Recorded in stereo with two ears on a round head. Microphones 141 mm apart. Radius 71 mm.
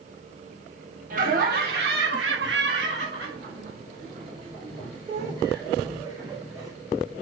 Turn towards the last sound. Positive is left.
turn(degrees=-25)  # may be behind; listen again after turning